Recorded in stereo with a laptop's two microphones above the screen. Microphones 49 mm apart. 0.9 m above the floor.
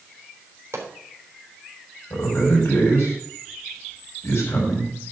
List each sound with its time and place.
0.7 s a pop: 60° right (ahead or behind), 3.5 m
2.1 s a man speaking: 60° left (ahead or behind), 6 m